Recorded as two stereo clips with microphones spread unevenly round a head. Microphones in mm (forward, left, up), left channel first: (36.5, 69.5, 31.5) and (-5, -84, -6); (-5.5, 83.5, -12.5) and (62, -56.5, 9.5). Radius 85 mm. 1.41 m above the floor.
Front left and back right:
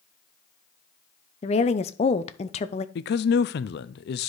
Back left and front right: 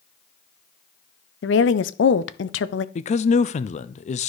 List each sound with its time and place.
1.4 s a woman speaking: 130° left, 0.6 m
3.0 s a man speaking: 95° left, 0.5 m